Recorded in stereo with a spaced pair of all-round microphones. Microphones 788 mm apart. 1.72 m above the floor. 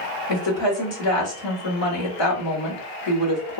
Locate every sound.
0.3 s a woman speaking: 35° left (ahead or behind), 1.2 m